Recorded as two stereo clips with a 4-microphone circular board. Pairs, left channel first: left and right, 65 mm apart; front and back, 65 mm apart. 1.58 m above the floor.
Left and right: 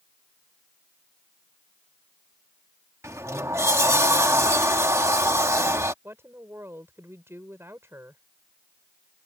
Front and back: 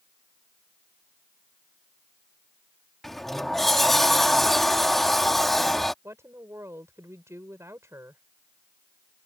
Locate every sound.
3.0 s a sliding door: 85° right
6.0 s a woman speaking: 140° right